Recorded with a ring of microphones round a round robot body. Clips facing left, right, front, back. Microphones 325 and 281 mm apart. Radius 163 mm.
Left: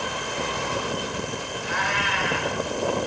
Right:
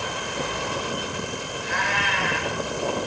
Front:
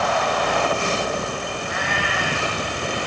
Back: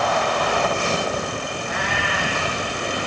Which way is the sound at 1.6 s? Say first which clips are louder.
Even, even; 30° right.